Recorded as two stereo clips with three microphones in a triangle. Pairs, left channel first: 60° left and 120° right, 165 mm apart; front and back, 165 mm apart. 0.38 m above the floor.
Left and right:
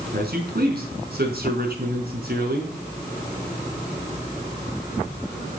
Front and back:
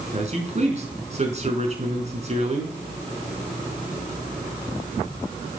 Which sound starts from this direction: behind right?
A man speaking, at 0.1 s.